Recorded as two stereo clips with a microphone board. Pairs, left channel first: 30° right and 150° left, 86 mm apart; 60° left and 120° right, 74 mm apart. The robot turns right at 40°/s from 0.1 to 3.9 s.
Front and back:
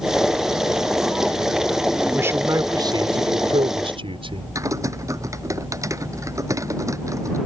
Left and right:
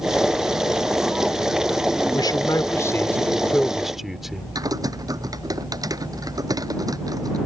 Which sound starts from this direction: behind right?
Typing on a keyboard, at 4.5 s.